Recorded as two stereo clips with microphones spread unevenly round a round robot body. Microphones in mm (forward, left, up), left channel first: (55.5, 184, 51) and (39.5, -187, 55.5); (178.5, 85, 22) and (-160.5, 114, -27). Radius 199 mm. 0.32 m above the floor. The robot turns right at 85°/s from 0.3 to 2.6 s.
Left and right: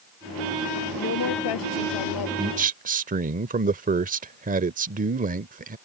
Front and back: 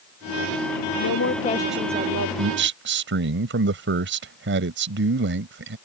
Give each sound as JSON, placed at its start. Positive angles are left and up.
{"t": 1.0, "sound": "a woman speaking", "azimuth_deg": 20}
{"t": 2.4, "sound": "a man speaking", "azimuth_deg": -170}